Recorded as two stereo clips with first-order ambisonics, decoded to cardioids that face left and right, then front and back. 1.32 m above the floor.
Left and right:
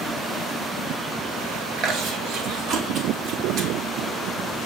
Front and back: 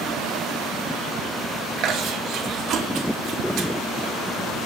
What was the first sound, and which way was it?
Chewing, 135° right.